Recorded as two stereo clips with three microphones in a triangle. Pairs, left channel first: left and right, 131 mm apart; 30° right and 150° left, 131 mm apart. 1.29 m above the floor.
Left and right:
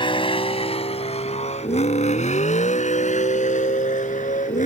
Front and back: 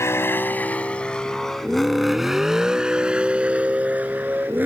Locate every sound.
0.0 s a vehicle: 40° left; by 4.7 s 75° left